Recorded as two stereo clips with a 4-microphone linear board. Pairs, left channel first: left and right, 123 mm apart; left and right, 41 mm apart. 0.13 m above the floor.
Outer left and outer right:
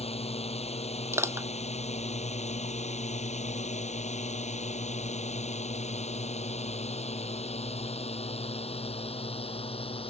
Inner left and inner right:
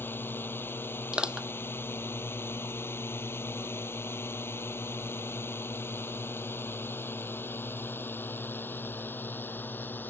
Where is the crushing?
20° right (ahead or behind).